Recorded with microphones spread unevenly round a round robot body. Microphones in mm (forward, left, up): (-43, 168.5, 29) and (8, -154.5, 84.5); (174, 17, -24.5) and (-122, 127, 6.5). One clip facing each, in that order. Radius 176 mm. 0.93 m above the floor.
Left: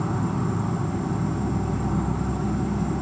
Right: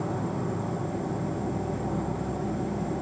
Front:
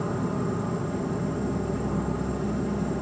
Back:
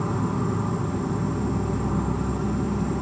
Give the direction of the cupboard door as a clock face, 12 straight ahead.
No cupboard door in this recording.